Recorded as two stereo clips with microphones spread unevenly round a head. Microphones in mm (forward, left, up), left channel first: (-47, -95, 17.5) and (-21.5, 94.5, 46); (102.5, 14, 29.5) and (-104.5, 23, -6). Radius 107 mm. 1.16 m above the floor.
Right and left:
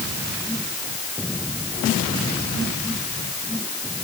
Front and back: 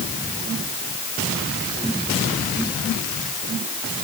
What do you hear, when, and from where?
Only background noise.